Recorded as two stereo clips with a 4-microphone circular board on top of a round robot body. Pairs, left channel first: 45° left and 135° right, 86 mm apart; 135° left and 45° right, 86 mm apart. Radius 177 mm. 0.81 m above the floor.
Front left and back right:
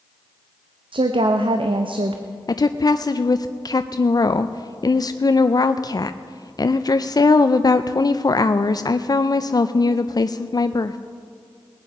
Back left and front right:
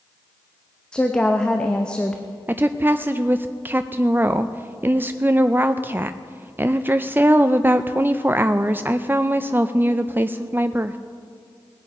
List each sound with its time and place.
0.9 s a woman speaking: 145° right, 0.8 m
2.5 s a woman speaking: 15° left, 0.6 m